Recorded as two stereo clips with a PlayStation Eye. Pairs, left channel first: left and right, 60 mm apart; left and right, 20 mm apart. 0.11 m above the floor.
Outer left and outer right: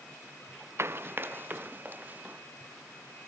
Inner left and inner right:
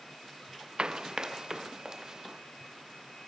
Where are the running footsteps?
45° right (ahead or behind); by 2.4 s 30° right (ahead or behind).